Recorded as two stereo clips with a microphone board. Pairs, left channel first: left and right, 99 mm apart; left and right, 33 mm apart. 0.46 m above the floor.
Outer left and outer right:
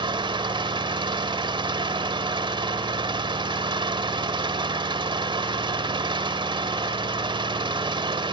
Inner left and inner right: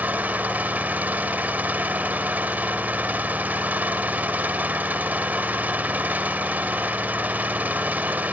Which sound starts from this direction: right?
An engine running, at 0.0 s.